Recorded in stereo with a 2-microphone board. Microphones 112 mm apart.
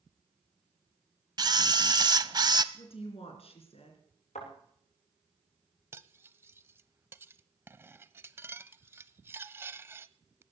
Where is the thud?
80° left, 9.5 m.